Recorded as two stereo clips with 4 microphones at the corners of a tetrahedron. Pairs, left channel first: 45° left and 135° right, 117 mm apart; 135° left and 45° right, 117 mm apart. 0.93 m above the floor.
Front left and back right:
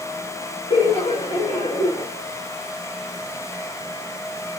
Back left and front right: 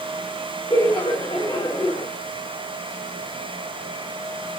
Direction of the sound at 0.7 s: 70° left.